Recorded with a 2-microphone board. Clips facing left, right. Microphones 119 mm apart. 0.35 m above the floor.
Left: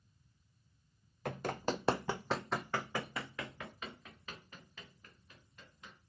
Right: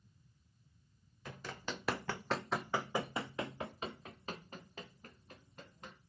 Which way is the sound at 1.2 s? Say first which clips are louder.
Left 8 dB; 60° left (ahead or behind).